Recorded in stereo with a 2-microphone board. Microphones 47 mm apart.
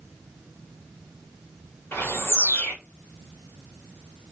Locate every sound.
1.9 s a bird: 65° left (ahead or behind), 1.1 m